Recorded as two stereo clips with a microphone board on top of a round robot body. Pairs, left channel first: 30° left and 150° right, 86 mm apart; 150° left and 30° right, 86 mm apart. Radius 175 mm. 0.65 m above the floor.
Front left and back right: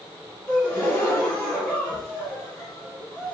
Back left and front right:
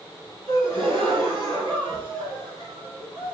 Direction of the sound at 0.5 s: 60° right.